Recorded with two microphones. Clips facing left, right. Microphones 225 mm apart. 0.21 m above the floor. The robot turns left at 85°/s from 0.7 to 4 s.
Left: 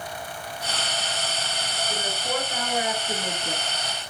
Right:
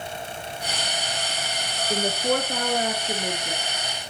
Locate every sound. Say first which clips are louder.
1.9 s a woman speaking: right 7 dB; 55° right, 3 m; by 3.6 s 160° left, 3 m